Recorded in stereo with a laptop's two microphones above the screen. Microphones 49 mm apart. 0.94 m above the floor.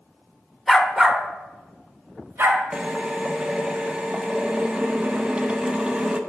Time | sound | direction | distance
0.7 | a dog barking | centre (ahead or behind) | 0.8 m
2.7 | a drill | 20° right (ahead or behind) | 0.8 m